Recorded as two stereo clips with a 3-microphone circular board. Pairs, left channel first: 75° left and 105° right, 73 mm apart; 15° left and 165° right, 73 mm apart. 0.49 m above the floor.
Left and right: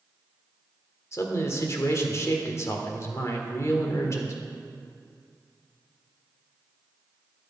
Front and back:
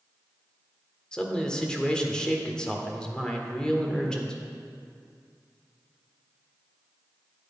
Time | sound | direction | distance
1.1 | a man speaking | 90° left | 1.4 m